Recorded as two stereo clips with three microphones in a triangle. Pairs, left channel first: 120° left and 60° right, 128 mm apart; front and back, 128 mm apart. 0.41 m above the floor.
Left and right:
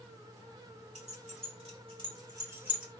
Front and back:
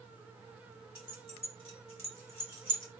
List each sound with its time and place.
0.9 s keys jangling: 40° right, 1.9 m; by 2.9 s 20° left, 1.1 m